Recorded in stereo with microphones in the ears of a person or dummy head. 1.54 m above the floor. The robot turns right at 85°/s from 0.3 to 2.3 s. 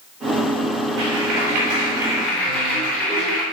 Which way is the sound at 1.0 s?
110° right.